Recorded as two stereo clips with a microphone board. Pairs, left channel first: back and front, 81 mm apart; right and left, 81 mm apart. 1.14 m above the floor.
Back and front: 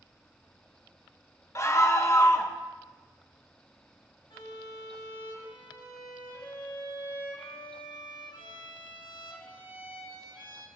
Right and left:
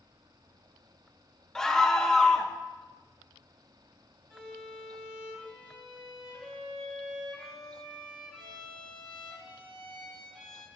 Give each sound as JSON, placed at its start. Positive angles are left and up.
{"t": 1.6, "sound": "a scream", "azimuth_deg": -170, "distance_m": 0.8}
{"t": 4.3, "sound": "a violin", "azimuth_deg": 175, "distance_m": 2.5}